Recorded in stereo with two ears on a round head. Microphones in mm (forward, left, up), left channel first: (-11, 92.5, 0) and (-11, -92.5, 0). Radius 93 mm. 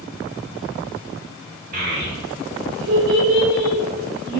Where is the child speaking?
45° right (ahead or behind), 1.0 m; by 4.4 s 50° right (ahead or behind), 1.5 m.